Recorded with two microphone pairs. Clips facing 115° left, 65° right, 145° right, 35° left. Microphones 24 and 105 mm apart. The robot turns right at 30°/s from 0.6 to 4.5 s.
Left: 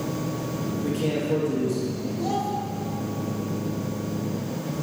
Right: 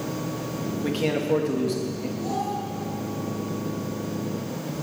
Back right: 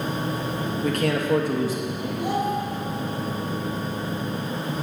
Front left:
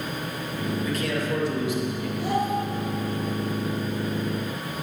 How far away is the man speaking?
About 2.5 m.